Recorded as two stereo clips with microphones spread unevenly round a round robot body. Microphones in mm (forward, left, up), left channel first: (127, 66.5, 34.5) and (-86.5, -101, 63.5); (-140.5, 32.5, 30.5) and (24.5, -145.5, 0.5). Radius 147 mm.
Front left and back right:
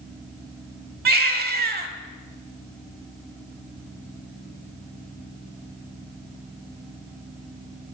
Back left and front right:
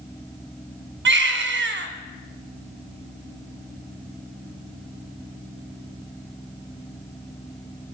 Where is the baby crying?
85° right, 1.2 m.